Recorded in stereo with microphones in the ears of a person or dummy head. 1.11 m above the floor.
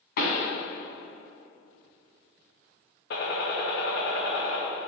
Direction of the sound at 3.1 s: 55° left (ahead or behind).